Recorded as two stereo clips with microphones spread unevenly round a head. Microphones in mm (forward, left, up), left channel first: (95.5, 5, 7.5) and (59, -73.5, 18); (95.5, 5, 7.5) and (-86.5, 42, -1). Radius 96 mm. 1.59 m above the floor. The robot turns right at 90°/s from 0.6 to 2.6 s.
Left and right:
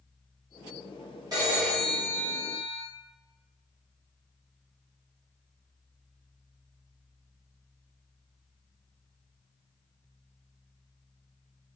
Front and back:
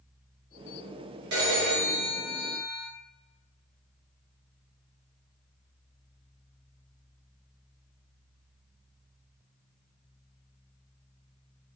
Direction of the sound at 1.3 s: 165° right.